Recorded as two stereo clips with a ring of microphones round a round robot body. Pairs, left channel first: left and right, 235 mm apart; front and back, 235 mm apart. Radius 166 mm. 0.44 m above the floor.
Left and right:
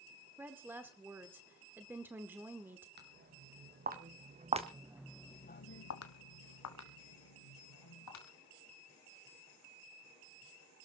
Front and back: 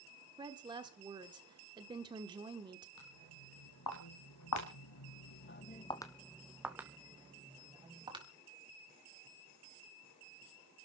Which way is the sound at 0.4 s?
155° right.